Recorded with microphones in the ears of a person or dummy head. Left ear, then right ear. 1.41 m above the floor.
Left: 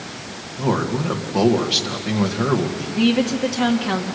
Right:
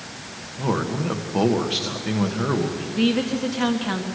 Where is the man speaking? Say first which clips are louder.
Left 3 dB; 5° left (ahead or behind), 1.6 m.